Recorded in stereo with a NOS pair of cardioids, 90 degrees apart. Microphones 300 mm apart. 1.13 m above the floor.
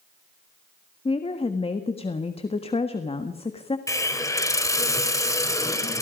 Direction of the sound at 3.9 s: 10° left.